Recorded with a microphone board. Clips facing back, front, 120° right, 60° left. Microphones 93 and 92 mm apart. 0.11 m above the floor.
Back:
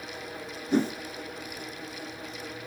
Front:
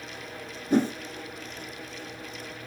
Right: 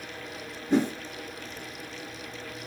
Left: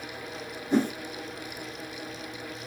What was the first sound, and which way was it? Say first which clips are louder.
A whoosh: front 2 dB, right 1 dB; 50° right.